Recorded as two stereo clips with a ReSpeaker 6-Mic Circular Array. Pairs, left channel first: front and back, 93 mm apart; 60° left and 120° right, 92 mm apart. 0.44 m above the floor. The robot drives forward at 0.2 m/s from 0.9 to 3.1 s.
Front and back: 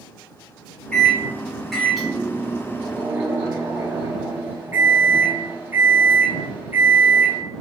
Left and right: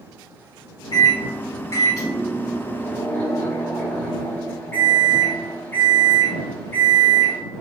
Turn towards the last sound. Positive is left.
turn(degrees=120)